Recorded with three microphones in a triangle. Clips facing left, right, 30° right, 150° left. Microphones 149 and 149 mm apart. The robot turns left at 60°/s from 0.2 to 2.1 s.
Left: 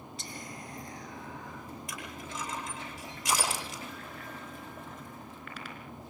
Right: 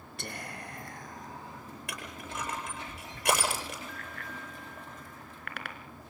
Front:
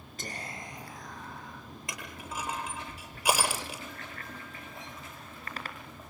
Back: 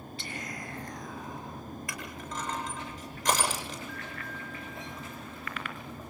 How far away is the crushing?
About 8.5 m.